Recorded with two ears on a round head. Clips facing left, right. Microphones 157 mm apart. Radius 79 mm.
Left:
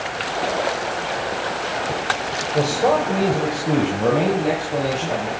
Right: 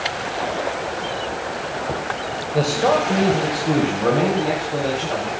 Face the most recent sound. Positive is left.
turn(degrees=30)  # may be behind; listen again after turning